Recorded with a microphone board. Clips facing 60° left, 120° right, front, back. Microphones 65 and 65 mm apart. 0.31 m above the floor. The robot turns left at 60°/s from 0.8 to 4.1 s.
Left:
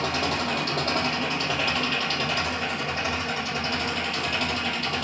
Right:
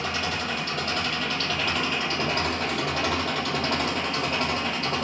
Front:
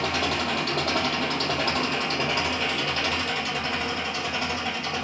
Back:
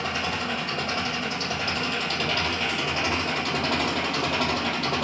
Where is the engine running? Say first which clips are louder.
Left 2 dB, front 2 dB; 25° left, 3.5 m; by 5.0 s 175° right, 3.5 m.